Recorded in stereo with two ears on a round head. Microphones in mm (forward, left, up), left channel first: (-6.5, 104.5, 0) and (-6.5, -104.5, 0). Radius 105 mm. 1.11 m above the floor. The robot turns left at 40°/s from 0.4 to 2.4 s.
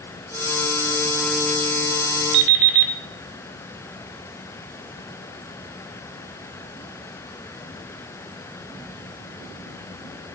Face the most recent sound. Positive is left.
turn(degrees=-50)  # may be behind; listen again after turning